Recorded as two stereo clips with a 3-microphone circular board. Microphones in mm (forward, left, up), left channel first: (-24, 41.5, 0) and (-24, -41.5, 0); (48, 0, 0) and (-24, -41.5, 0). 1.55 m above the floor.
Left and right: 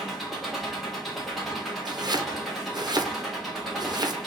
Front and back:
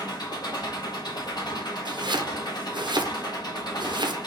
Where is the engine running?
Straight ahead, 1.5 m.